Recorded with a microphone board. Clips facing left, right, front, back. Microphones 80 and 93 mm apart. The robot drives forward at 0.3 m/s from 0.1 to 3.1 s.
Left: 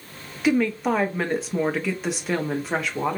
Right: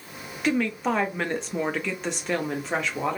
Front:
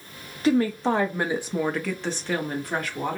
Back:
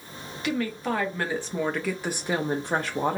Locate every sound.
0.4 s a woman speaking: 5° left, 0.6 m; by 3.2 s 175° left, 0.6 m